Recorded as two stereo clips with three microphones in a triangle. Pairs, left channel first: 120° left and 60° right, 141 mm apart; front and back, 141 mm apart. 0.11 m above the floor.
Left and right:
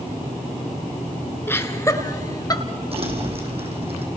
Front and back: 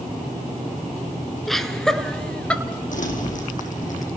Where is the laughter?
85° left, 1.3 m; by 2.6 s 80° left, 1.7 m.